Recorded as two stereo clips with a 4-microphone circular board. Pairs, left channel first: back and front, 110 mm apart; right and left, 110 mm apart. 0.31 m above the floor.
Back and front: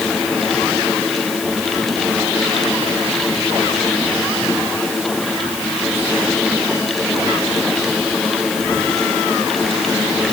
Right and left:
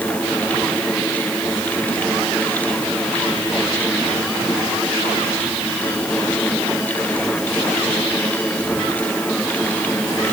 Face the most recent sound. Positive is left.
No sound to turn to.